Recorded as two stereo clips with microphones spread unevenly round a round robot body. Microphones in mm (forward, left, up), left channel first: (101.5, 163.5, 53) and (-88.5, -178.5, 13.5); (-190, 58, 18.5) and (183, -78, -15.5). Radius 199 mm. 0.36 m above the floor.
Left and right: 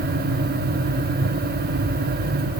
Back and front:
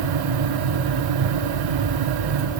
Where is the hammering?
No hammering in this recording.